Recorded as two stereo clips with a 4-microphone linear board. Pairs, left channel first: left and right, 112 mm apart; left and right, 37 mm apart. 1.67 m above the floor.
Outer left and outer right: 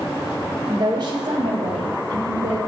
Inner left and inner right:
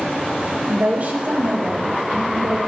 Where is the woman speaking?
35° right (ahead or behind), 1.1 m; by 2.6 s 55° right (ahead or behind), 3.5 m.